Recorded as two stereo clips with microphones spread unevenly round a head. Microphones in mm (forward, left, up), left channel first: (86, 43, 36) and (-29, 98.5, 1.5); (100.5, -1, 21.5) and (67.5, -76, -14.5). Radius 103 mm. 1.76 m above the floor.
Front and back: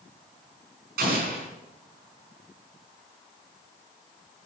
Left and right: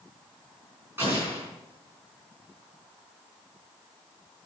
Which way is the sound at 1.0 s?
160° left.